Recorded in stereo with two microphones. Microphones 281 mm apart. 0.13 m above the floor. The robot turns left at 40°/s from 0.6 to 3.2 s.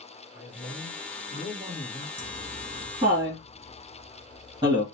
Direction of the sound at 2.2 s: 10° left (ahead or behind).